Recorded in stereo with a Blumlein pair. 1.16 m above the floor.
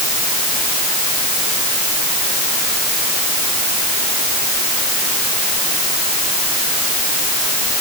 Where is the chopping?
No chopping in this recording.